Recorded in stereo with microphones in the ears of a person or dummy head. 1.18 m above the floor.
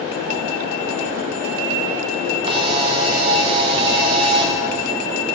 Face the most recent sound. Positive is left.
turn(degrees=-30)  # may be behind; listen again after turning